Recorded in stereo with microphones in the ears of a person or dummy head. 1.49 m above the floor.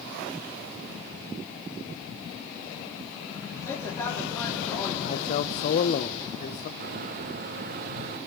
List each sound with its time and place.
3.6 s a man speaking: 20° left (ahead or behind), 4 m
5.0 s a man speaking: 40° left (ahead or behind), 0.8 m
6.8 s a microwave: 45° right (ahead or behind), 0.9 m